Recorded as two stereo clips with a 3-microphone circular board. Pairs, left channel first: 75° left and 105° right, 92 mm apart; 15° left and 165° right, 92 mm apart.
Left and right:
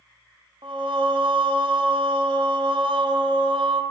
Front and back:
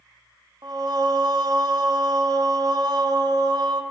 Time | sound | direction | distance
0.6 | singing | 125° right | 0.6 m